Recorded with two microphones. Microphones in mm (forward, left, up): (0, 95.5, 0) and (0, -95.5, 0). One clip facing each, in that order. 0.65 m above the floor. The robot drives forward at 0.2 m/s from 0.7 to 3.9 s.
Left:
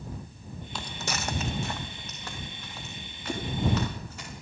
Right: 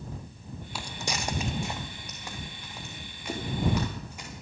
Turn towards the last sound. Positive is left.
turn(degrees=-15)  # may be behind; listen again after turning